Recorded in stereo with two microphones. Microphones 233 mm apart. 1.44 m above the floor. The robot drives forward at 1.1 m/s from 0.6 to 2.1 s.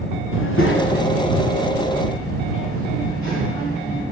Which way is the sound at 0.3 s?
60° left (ahead or behind).